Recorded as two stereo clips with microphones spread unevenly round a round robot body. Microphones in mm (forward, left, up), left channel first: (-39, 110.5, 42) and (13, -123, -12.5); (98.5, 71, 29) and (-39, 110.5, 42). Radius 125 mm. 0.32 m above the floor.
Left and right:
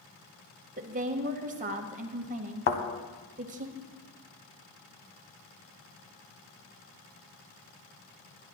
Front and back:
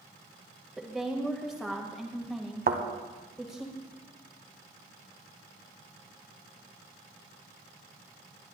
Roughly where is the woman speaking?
Right.